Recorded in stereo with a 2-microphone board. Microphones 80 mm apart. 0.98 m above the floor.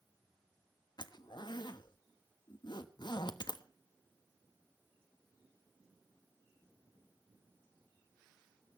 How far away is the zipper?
About 1.2 m.